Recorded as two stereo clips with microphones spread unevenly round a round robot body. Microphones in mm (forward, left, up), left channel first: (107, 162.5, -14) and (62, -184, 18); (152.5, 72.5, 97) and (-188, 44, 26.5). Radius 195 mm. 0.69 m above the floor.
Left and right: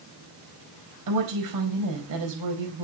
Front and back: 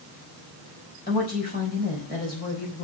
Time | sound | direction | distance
1.1 | a woman speaking | 65° right | 4 m